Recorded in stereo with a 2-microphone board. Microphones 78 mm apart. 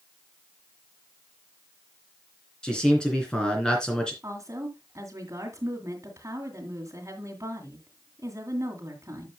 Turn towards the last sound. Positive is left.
turn(degrees=-40)  # may be behind; listen again after turning